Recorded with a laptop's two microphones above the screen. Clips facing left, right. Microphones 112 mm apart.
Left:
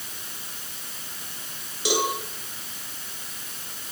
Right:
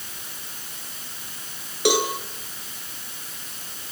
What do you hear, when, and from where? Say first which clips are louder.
1.9 s a cowbell: right 4 dB; 75° right (ahead or behind), 7 m